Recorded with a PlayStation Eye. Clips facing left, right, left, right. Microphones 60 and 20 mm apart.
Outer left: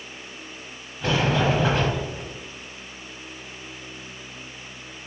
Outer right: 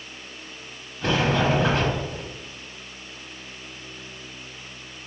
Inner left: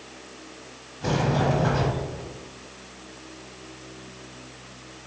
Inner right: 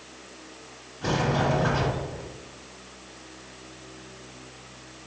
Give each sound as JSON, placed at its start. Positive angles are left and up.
{"t": 1.0, "sound": "a sliding door", "side_deg": 5, "distance_m": 1.0}